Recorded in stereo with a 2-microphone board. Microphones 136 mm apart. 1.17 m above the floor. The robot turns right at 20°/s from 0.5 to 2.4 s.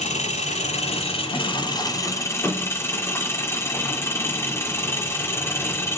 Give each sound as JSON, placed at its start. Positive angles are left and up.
{"t": 0.0, "sound": "an engine running", "azimuth_deg": 125, "distance_m": 2.5}